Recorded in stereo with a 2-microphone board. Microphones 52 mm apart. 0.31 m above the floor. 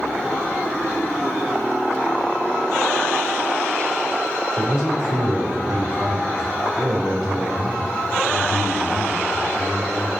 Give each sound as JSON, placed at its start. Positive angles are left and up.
{"t": 4.6, "sound": "a man speaking", "side_deg": -20, "distance_m": 3.5}